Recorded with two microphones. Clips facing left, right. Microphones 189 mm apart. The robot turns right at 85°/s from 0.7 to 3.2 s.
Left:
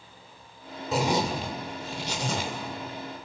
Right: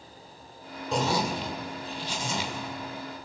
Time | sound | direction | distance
0.9 | a zipper | straight ahead | 1.9 m